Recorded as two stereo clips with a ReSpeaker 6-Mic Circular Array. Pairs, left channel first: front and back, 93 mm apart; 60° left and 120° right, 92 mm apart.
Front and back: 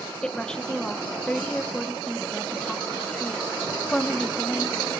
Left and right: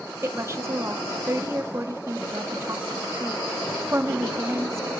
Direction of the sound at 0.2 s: 75° right.